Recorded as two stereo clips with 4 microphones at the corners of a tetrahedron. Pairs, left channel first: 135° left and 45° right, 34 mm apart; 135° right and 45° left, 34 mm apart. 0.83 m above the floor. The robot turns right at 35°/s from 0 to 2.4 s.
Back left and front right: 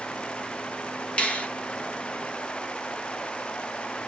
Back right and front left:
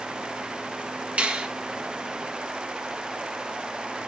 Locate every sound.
1.2 s a finger snap: 90° left, 1.6 m; by 1.5 s 100° left, 1.6 m